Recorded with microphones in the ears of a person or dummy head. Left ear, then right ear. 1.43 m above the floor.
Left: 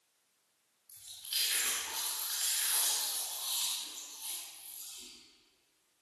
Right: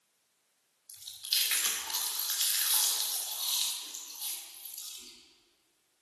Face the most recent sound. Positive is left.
turn(degrees=-35)  # may be behind; listen again after turning